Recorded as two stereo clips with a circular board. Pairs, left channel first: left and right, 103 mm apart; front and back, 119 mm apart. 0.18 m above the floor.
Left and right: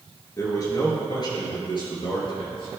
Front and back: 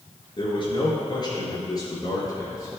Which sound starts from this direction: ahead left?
A man speaking, at 0.4 s.